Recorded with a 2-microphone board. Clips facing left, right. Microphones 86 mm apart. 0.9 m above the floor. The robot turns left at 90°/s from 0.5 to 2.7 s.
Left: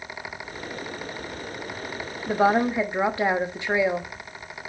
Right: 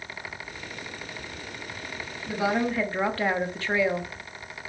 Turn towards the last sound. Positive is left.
turn(degrees=15)